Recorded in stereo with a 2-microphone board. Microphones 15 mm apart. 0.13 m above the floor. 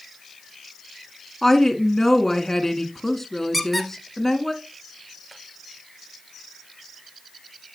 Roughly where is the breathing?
No breathing in this recording.